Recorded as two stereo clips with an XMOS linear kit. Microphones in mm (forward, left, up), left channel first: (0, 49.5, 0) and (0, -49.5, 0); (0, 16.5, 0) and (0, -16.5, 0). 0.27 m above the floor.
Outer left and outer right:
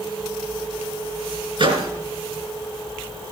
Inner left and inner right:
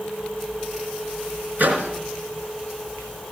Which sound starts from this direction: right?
A microwave, at 1.6 s.